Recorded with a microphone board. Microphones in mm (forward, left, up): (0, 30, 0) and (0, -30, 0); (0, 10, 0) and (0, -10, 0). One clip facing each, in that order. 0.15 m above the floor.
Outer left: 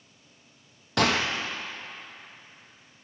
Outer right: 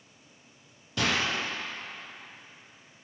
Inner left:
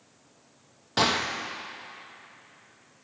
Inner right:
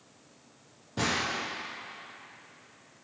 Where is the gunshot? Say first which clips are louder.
Outer left 4 dB, inner left 5 dB; 70° left (ahead or behind), 0.9 m.